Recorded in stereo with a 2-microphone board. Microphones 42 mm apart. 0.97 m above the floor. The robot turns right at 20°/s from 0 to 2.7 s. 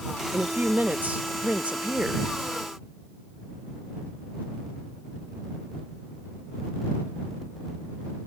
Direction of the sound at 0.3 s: 70° right.